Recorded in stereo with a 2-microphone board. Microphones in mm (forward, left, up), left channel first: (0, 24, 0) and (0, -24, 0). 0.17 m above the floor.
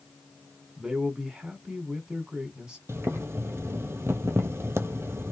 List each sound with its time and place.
0.8 s a man speaking: 15° right (ahead or behind), 1.2 m
2.9 s boiling: 75° right (ahead or behind), 0.8 m